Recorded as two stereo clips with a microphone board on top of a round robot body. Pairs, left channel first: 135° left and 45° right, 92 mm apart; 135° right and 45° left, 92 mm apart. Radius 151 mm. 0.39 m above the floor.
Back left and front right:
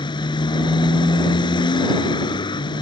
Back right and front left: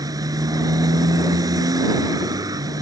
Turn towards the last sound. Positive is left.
turn(degrees=95)